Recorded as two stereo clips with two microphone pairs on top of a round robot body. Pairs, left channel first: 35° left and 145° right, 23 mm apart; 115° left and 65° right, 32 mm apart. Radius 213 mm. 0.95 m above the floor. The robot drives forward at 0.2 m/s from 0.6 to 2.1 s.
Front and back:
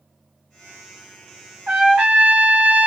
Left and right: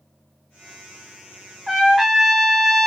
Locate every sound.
1.7 s a trumpet: 155° right, 1.8 m